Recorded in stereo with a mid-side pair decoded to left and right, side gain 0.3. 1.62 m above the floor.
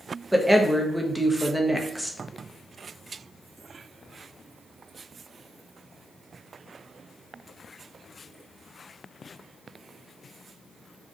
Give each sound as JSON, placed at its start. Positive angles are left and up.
{"t": 0.3, "sound": "a woman speaking", "azimuth_deg": -5, "distance_m": 0.6}